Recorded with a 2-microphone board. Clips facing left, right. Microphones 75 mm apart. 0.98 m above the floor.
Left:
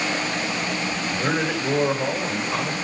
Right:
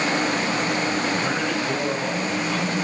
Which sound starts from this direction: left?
A man speaking, at 1.1 s.